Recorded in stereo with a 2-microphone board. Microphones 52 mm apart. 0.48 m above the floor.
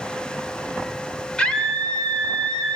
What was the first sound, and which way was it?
A scream, 20° left (ahead or behind).